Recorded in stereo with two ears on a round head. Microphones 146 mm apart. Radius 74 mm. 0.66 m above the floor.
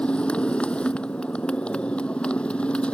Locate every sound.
0.0 s a motorcycle: 5° left (ahead or behind)